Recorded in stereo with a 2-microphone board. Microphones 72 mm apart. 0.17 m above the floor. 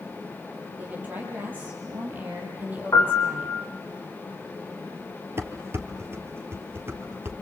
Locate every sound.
0.8 s a woman speaking: 25° right (ahead or behind), 6 m
2.9 s a piano: 40° left (ahead or behind), 5 m
5.4 s dishes clattering: 35° right (ahead or behind), 2 m